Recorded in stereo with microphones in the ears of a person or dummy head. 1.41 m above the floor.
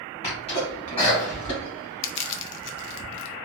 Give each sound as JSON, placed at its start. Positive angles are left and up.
{"t": 0.2, "sound": "a sneeze", "side_deg": 35, "distance_m": 1.6}
{"t": 2.0, "sound": "crushing", "side_deg": 65, "distance_m": 0.5}